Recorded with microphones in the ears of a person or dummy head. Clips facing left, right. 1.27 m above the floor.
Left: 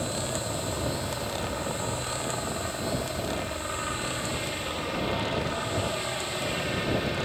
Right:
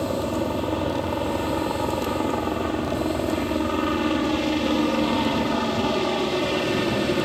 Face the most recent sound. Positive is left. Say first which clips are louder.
# right 8 dB
turn(degrees=-55)  # may be behind; listen again after turning